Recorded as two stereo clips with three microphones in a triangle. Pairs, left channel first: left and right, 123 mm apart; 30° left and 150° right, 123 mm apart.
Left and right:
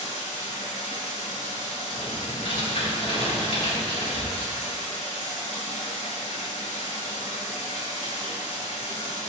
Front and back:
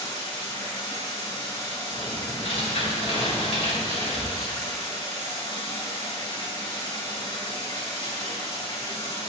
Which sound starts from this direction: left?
Running water, at 0.0 s.